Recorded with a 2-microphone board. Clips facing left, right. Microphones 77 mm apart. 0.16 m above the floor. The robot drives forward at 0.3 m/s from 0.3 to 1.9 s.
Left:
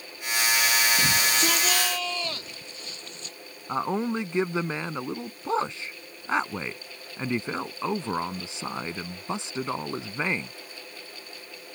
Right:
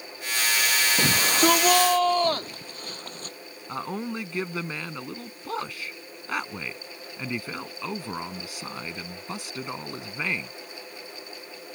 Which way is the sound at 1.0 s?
50° right (ahead or behind).